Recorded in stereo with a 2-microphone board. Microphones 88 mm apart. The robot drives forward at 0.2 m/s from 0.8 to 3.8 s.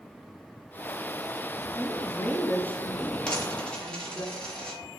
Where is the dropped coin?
10° left (ahead or behind), 1.2 m.